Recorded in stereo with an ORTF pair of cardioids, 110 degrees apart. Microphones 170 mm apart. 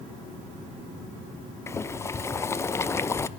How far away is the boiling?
About 0.6 m.